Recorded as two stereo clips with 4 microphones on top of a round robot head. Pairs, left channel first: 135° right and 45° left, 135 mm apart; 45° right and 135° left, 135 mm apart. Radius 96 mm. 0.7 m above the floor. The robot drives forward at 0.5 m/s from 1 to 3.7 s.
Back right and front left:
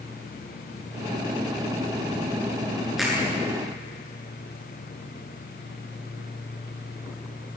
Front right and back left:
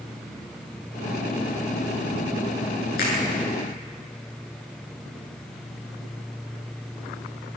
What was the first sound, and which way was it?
A finger snap, 45° right.